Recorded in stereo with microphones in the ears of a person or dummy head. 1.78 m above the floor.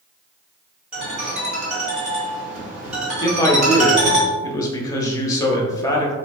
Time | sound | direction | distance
0.9 | a ringtone | 5° right (ahead or behind) | 1.4 m
3.2 | a man speaking | 15° left (ahead or behind) | 0.6 m